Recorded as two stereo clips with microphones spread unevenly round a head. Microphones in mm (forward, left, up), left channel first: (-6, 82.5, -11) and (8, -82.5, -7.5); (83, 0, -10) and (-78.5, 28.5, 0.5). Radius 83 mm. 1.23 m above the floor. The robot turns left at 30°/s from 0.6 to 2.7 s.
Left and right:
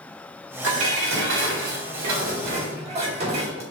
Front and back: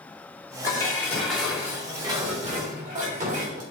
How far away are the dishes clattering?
About 2.5 m.